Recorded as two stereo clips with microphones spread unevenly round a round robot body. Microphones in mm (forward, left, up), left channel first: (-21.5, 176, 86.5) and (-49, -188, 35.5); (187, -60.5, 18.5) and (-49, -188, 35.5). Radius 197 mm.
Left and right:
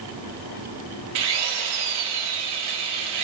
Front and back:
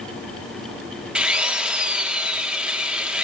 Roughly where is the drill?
Ahead right.